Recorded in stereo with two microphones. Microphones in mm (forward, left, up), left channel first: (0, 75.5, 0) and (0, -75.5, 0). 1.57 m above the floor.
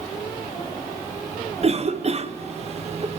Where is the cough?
45° right (ahead or behind), 0.8 m.